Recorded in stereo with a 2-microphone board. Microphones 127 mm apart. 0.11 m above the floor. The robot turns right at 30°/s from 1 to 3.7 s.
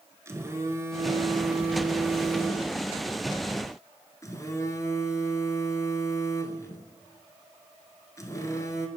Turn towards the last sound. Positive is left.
turn(degrees=45)